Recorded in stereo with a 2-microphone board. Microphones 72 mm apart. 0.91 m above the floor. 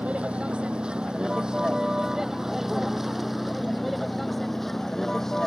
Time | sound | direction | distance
0.0 | a vehicle | 20° right (ahead or behind) | ?